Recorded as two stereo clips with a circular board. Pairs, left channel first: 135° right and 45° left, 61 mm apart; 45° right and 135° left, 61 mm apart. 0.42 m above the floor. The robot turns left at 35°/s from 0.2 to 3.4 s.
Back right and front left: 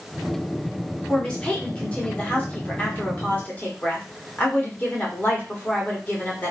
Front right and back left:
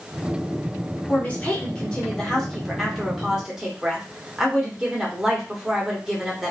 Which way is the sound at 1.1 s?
70° right.